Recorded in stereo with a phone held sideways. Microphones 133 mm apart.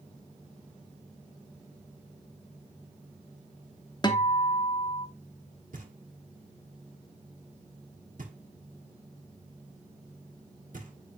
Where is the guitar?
30° left (ahead or behind), 0.8 m.